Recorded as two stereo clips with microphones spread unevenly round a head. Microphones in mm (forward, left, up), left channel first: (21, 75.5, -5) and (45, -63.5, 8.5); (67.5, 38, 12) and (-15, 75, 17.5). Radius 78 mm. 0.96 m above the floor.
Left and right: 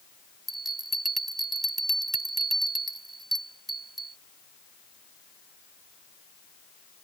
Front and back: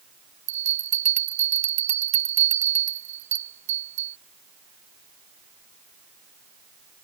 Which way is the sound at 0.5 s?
170° right.